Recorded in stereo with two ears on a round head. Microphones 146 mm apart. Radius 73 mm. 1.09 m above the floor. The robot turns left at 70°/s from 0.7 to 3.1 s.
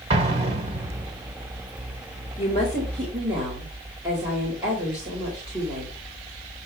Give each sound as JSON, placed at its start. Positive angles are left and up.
{"t": 0.1, "sound": "an explosion", "side_deg": -35, "distance_m": 1.5}
{"t": 2.4, "sound": "a woman speaking", "azimuth_deg": 35, "distance_m": 4.0}